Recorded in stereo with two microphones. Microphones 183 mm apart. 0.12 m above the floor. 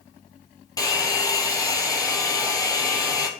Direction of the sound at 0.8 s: 20° left (ahead or behind).